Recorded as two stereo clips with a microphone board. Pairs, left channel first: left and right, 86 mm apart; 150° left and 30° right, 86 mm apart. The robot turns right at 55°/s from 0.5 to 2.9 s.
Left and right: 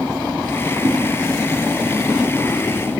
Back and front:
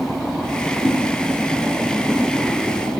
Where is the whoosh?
115° right, 1.0 m; by 1.0 s 105° right, 1.0 m.